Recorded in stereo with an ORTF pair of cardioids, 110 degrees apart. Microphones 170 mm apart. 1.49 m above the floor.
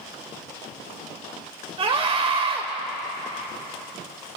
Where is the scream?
35° right, 2.5 m.